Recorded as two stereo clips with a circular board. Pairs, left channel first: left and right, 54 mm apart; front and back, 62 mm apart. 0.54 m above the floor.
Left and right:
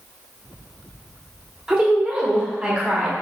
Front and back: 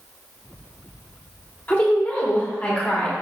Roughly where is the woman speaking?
Ahead right.